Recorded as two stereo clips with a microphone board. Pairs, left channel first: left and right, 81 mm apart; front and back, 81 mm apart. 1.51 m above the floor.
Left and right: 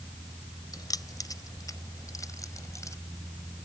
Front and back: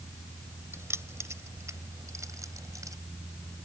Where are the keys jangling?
125° left; by 3.0 s 135° left.